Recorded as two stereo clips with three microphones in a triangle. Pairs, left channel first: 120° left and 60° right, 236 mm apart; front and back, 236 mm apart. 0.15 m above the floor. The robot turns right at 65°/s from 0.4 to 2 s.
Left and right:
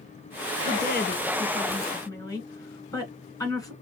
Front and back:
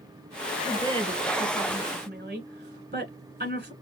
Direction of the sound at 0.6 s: 95° left.